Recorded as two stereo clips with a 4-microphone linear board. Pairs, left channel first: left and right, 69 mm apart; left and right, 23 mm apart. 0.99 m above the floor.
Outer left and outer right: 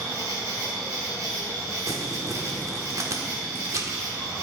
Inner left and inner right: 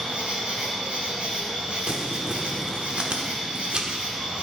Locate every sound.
0.0 s an insect: 60° right (ahead or behind), 3.5 m
1.9 s crumpling: 50° right (ahead or behind), 1.1 m